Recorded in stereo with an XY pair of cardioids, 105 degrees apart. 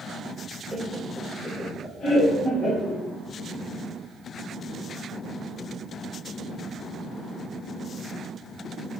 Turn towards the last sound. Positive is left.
turn(degrees=65)